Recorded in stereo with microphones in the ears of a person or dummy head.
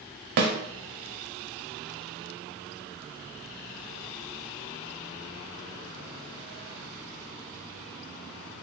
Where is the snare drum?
50° right (ahead or behind), 0.7 m.